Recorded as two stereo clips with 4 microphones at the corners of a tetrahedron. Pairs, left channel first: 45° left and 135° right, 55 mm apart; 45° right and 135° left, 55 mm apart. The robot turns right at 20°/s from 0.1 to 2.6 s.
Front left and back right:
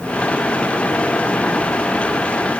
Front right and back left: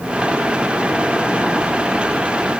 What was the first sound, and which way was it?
Only background noise.